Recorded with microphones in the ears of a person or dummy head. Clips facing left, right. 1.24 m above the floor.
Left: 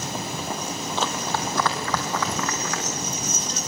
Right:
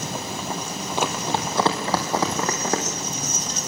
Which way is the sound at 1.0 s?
15° right (ahead or behind).